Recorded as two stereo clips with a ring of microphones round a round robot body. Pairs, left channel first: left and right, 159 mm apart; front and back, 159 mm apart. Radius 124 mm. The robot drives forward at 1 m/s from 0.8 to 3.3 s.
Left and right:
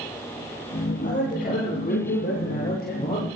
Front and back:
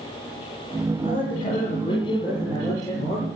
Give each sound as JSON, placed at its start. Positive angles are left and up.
{"t": 1.0, "sound": "a man speaking", "azimuth_deg": 55, "distance_m": 8.0}